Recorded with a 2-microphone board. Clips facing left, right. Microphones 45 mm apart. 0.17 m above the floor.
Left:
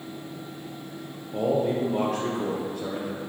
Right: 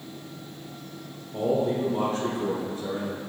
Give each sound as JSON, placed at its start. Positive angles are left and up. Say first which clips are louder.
{"t": 1.3, "sound": "a man speaking", "louder": "left 1 dB", "side_deg": 70, "distance_m": 3.5}